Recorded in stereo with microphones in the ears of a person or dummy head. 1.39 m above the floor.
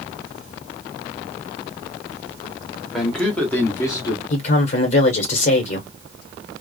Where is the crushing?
I don't hear crushing.